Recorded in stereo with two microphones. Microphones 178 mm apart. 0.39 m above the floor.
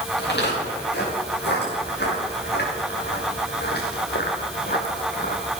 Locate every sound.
0.2 s footsteps: 70° left (ahead or behind), 7.5 m; by 5.5 s 55° left (ahead or behind), 2.5 m